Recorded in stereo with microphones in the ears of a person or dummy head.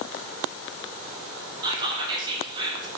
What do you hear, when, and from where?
1.6 s whispering: 25° right (ahead or behind), 0.6 m